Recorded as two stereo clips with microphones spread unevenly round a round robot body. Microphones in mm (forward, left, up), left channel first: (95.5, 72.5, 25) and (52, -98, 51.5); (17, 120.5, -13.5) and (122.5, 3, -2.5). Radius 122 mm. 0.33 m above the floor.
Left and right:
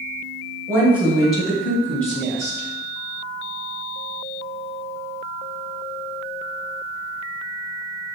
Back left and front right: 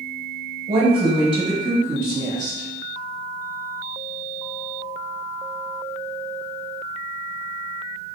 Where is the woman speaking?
30° right, 1.1 m; by 2.7 s 15° left, 1.9 m.